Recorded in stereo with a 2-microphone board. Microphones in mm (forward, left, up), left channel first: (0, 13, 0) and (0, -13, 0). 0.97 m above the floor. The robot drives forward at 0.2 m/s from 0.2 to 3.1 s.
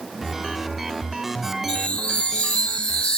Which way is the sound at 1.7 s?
55° left (ahead or behind).